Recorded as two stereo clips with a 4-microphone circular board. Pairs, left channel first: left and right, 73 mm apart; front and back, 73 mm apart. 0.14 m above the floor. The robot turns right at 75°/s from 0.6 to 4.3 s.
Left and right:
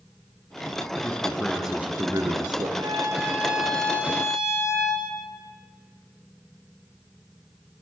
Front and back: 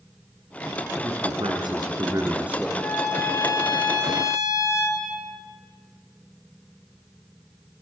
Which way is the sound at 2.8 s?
65° right.